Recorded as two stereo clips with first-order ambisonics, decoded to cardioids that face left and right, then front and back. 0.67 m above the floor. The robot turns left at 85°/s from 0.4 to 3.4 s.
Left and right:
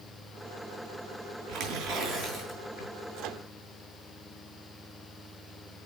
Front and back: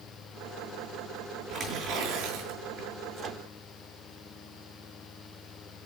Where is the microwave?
105° right, 1.2 m; by 3.5 s 130° right, 1.2 m.